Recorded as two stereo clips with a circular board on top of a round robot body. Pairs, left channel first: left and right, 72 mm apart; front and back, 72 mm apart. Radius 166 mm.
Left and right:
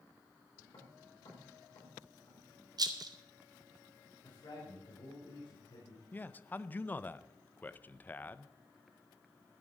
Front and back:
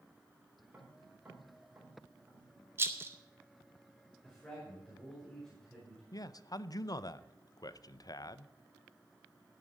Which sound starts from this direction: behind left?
Tapping, at 0.7 s.